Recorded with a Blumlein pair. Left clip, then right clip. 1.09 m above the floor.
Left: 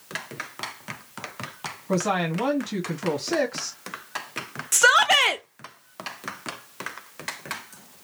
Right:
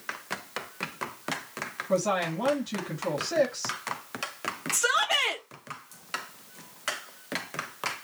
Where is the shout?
55° left, 0.6 m.